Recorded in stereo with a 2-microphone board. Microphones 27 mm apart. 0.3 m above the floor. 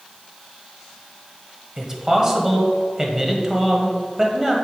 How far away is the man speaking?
About 1.4 m.